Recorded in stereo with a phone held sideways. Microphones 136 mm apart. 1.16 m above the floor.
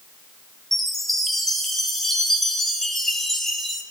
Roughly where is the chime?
Centre.